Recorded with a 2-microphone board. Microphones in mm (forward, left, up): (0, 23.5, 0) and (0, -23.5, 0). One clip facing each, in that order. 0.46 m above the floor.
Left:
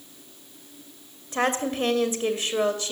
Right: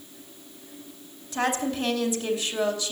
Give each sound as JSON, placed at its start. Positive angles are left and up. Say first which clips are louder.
{"t": 1.3, "sound": "a woman speaking", "louder": "left 1 dB", "side_deg": 40, "distance_m": 2.0}